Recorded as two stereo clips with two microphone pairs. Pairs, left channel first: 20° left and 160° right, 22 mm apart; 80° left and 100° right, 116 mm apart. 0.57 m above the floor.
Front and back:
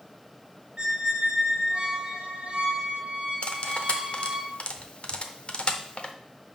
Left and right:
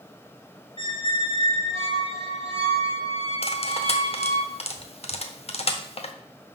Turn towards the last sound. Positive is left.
turn(degrees=60)